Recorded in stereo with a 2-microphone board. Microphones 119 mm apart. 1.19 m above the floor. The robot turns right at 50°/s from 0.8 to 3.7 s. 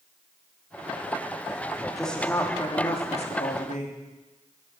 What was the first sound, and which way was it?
A woman speaking, 5° right.